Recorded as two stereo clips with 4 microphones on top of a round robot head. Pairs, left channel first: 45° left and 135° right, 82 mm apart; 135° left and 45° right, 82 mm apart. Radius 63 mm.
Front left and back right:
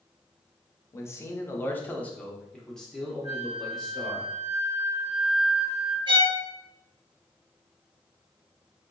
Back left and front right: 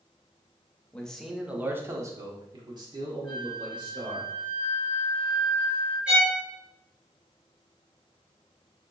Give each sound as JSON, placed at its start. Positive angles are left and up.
{"t": 0.9, "sound": "a man speaking", "azimuth_deg": 70, "distance_m": 0.7}
{"t": 3.2, "sound": "a flute", "azimuth_deg": -60, "distance_m": 1.8}
{"t": 6.1, "sound": "a violin", "azimuth_deg": -120, "distance_m": 1.0}